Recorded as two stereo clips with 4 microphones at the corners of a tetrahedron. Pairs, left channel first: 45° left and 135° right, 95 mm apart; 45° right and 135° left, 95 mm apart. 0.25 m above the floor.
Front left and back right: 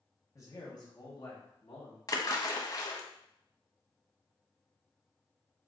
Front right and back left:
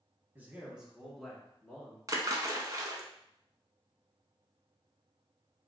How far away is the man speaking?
About 1.4 m.